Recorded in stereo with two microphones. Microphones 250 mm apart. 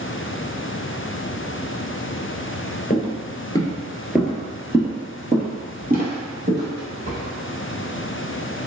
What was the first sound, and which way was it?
Footsteps, 30° left (ahead or behind).